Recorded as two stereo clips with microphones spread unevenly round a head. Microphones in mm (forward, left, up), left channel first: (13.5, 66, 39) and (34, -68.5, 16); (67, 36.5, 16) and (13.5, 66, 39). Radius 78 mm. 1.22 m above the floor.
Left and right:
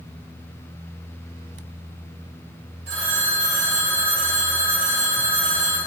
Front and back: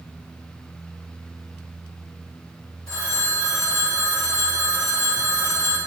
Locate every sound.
2.9 s a phone ringing: 90° right, 3 m